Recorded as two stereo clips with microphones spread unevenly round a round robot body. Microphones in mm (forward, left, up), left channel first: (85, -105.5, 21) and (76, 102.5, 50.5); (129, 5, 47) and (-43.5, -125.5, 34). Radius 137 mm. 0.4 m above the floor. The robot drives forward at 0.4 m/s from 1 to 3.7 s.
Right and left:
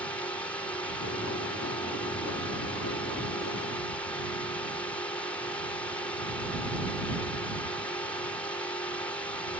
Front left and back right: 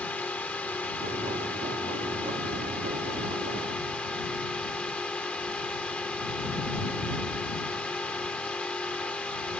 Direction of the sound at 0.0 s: 40° right.